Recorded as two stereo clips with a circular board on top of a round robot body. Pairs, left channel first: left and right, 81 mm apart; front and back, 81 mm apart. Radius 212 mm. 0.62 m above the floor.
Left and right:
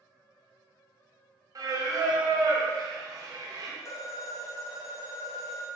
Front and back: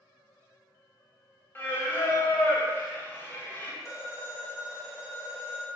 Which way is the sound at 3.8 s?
45° left.